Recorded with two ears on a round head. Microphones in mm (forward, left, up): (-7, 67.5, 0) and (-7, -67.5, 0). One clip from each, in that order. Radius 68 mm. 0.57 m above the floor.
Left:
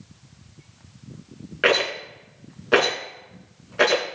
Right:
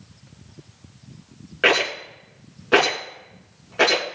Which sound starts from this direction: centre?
A rattle, at 1.6 s.